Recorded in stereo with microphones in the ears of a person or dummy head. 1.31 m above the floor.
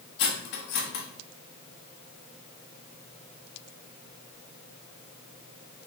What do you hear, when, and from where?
0.2 s cutlery clinking: 65° left (ahead or behind), 1.0 m